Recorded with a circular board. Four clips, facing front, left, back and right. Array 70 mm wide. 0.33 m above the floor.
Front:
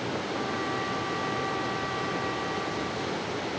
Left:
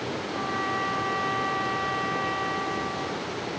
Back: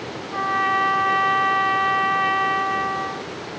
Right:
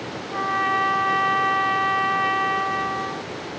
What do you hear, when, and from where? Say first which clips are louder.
0.3 s a trumpet: right 8 dB, back 14 dB; 145° right